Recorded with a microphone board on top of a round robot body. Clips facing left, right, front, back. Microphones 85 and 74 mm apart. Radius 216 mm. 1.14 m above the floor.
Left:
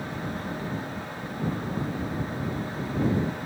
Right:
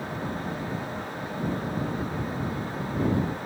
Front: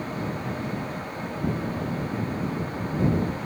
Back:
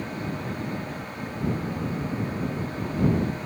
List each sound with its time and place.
Only background noise.